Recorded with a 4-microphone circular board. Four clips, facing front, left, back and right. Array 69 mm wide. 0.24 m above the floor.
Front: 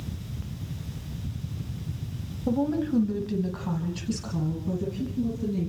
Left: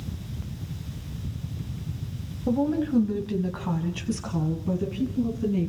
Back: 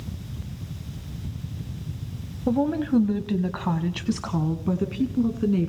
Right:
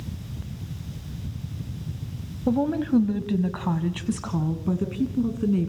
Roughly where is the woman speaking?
Behind right.